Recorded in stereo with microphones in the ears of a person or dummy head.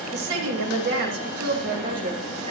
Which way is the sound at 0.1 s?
75° right (ahead or behind).